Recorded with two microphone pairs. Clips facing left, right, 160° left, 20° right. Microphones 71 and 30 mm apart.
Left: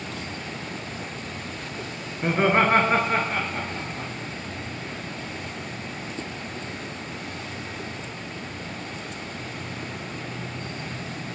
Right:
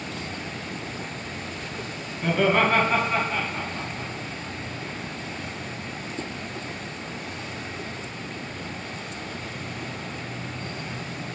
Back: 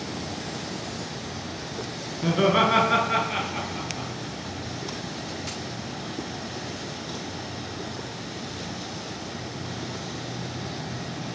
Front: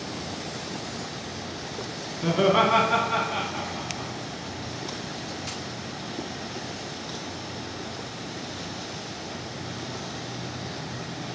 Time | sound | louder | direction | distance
2.2 | laughter | left 1 dB, even | 70° left | 1.2 m